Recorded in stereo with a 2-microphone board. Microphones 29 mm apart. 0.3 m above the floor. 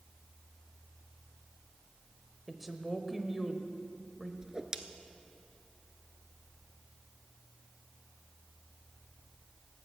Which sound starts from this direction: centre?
A woman speaking, at 2.5 s.